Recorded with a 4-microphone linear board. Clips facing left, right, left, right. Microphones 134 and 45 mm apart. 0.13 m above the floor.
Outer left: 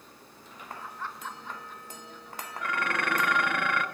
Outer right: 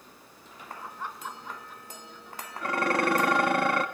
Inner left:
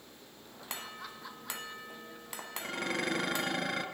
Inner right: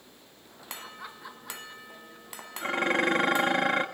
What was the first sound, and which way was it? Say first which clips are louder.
Laughter: outer right 1 dB, inner right 2 dB; 20° right (ahead or behind).